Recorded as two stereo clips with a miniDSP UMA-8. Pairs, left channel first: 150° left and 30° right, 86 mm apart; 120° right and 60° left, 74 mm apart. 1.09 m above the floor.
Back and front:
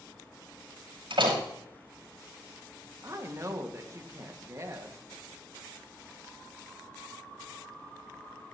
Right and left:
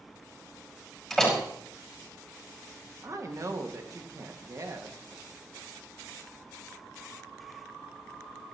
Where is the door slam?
30° right, 5.5 m.